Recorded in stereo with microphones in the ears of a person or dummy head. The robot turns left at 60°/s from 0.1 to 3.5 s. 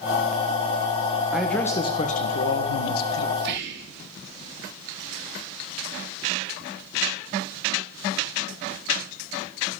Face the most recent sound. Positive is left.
turn(degrees=-60)  # may be behind; listen again after turning